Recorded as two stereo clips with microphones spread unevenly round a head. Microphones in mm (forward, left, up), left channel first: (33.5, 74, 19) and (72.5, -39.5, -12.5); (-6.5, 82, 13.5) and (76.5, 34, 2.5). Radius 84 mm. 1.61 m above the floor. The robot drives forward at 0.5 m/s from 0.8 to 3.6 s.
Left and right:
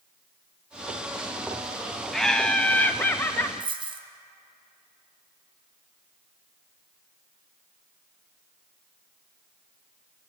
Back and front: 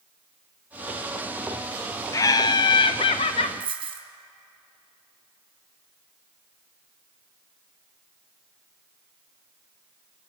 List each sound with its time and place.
2.1 s laughter: straight behind, 0.6 m
3.6 s a dropped coin: 20° right, 2.5 m